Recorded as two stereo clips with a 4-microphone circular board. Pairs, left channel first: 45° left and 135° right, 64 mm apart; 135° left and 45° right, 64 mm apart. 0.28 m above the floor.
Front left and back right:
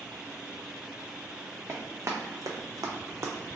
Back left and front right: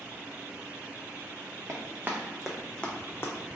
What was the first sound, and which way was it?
Running footsteps, 95° right.